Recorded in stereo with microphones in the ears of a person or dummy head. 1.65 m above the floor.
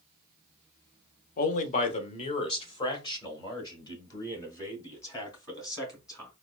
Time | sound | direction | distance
1.4 | a man speaking | 50° left (ahead or behind) | 0.7 m